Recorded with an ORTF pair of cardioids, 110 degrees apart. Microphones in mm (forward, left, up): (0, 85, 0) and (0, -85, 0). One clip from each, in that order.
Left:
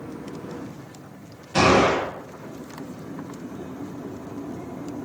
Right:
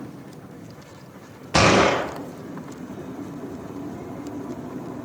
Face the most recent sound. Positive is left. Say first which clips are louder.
# right 1 dB
turn(degrees=-60)